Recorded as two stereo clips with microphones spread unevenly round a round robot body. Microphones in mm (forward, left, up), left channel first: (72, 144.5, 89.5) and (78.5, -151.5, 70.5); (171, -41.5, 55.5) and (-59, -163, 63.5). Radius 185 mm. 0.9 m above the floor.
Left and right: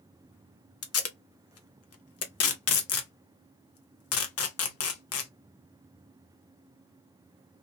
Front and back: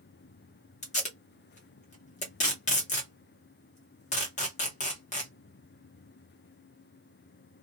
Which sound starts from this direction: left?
Tape being pulled, at 0.8 s.